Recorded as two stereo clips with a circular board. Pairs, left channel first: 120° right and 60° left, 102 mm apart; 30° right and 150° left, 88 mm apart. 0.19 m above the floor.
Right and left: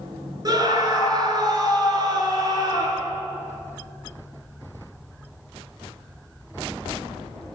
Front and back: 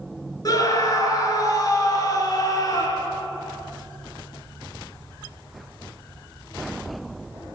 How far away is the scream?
About 2.5 m.